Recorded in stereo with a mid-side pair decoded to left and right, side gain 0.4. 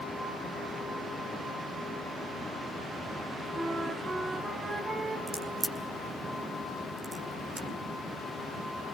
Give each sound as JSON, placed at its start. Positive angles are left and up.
{"t": 3.5, "sound": "a flute", "azimuth_deg": -40, "distance_m": 4.5}
{"t": 5.3, "sound": "a crack", "azimuth_deg": -15, "distance_m": 3.5}